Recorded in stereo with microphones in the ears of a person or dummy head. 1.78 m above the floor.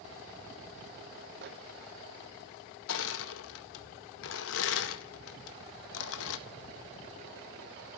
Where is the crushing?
65° left (ahead or behind), 1.8 m.